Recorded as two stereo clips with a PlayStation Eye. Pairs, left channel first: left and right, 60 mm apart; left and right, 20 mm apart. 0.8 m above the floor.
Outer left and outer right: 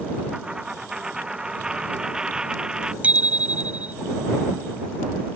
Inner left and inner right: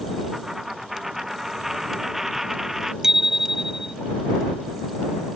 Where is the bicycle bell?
25° right (ahead or behind).